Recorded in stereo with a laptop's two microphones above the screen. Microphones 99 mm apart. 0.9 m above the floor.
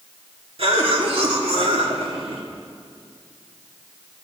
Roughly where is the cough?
Right.